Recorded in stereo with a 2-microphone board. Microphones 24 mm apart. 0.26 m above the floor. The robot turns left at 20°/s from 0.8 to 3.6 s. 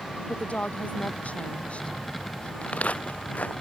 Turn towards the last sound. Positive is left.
turn(degrees=70)  # may be behind; listen again after turning